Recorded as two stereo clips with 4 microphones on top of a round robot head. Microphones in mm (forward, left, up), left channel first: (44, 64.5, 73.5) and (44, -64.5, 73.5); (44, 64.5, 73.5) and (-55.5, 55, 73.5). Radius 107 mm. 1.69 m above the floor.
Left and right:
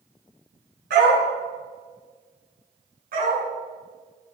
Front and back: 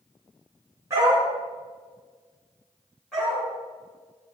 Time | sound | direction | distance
0.9 | a dog barking | 100° right | 6.5 m
3.1 | a dog barking | 85° right | 6.5 m